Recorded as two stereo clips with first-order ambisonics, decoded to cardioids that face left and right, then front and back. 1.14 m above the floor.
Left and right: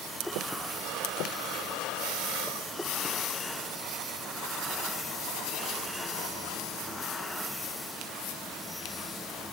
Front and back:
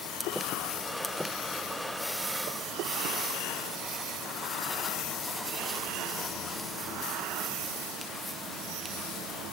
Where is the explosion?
I don't hear an explosion.